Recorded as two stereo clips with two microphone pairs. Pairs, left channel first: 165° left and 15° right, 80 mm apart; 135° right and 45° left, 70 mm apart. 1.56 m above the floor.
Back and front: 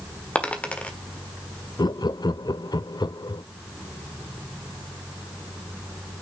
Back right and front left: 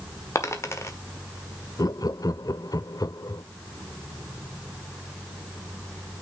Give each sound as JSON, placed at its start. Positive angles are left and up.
{"t": 0.3, "sound": "a dropped coin", "azimuth_deg": -125, "distance_m": 1.5}
{"t": 1.8, "sound": "laughter", "azimuth_deg": -165, "distance_m": 0.5}